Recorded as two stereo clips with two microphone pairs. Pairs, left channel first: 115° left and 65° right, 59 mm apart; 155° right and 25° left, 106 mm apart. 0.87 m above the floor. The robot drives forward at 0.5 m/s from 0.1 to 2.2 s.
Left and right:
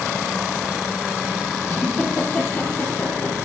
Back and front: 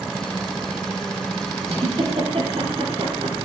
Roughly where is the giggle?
Ahead left.